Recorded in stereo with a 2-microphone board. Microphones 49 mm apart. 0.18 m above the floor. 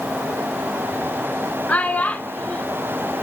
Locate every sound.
1.7 s a child speaking: 35° left (ahead or behind), 0.9 m